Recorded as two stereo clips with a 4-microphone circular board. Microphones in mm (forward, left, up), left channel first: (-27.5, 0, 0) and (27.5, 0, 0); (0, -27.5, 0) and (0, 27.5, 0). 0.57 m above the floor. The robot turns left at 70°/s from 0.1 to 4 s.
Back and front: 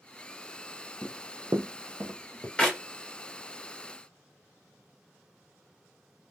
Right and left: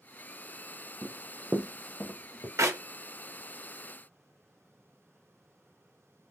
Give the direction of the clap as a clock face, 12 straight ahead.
8 o'clock.